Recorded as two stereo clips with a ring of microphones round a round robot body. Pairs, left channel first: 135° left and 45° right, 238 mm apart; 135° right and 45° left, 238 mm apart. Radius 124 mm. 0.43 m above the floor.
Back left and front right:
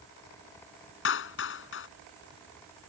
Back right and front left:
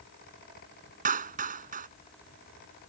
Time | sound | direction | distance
1.1 | a clap | 100° left | ?